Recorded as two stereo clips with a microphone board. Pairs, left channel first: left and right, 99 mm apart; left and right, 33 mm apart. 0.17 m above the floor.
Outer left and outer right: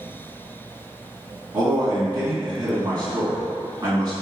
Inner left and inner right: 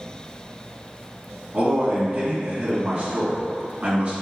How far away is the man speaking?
About 1.6 m.